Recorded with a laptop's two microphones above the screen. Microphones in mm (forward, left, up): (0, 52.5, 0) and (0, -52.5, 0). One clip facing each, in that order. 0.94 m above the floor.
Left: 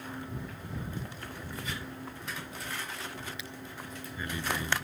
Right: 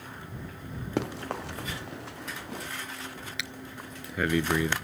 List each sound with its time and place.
1.0 s running footsteps: 75° right (ahead or behind); by 2.7 s 80° right
3.4 s breathing: 75° right (ahead or behind)